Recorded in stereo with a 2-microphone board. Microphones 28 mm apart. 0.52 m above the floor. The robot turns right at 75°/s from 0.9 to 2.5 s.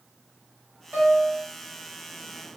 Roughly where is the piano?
Right.